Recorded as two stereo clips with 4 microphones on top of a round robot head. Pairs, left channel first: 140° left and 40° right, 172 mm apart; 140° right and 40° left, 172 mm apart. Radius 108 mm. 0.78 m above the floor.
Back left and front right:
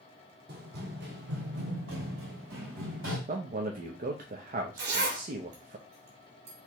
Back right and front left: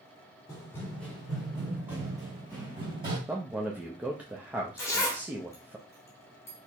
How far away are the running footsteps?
About 1.6 m.